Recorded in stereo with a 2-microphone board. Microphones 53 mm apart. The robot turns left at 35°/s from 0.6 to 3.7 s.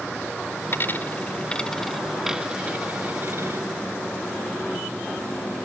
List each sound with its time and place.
0.7 s a dropped coin: 45° left (ahead or behind); by 3.6 s 55° right (ahead or behind)